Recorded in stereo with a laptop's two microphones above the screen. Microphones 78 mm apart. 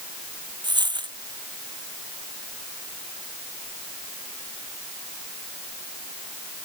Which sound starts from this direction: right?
A dropped coin, at 0.6 s.